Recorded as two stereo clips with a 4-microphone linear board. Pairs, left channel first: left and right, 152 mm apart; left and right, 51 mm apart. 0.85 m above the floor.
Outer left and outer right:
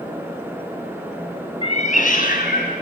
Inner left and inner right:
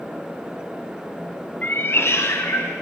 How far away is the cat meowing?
About 1.0 m.